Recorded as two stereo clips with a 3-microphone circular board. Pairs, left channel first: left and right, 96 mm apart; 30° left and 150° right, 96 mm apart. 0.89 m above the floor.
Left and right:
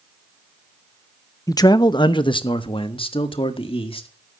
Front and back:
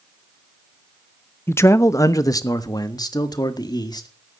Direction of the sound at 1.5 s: 80° left.